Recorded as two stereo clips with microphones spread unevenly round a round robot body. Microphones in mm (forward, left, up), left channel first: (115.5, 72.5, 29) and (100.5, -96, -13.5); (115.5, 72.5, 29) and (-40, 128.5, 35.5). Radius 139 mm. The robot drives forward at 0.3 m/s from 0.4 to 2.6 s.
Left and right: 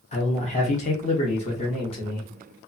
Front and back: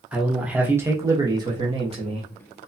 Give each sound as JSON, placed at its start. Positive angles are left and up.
{"t": 0.1, "sound": "a man speaking", "azimuth_deg": 80, "distance_m": 0.9}